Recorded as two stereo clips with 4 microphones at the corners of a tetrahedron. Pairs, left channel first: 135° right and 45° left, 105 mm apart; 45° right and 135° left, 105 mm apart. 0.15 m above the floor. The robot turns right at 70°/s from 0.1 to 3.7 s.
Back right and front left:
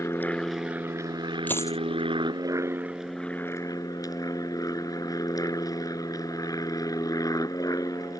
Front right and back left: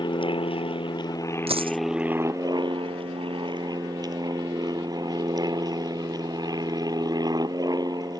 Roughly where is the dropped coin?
Behind left.